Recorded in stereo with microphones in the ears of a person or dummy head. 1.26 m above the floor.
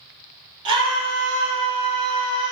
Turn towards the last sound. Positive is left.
turn(degrees=-25)  # may be behind; listen again after turning